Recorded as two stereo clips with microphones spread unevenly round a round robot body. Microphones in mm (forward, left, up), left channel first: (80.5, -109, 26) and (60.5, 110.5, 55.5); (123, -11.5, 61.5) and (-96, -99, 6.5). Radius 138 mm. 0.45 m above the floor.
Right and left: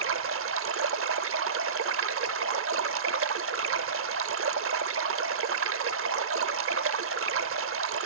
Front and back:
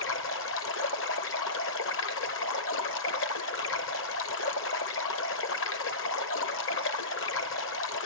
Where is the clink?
I don't hear a clink.